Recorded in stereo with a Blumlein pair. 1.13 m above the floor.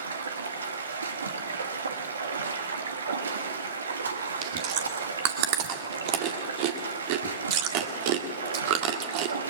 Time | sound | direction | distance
0.0 | running water | 70° right | 2.0 m
4.4 | chewing | 45° right | 2 m